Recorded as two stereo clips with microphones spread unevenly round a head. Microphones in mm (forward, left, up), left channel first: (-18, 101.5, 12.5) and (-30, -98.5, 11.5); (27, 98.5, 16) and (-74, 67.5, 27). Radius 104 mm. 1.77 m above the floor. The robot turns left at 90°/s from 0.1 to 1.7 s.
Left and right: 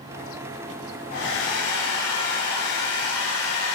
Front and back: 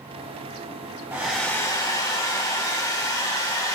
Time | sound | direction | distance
1.1 | a hair dryer | 130° left | 4 m